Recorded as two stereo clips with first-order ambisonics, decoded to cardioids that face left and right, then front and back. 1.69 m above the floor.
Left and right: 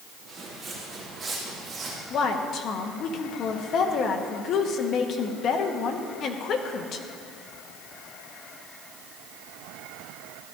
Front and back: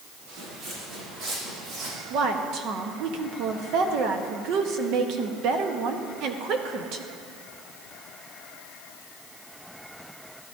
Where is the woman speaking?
140° left, 1.1 m.